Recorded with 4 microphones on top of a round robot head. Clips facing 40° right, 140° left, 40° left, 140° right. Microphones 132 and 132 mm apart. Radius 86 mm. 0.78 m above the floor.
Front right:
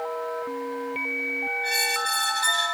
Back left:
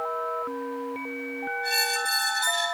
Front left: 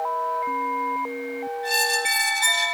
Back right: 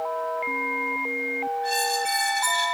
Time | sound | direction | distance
1.6 | a squeak | 100° left | 2.5 m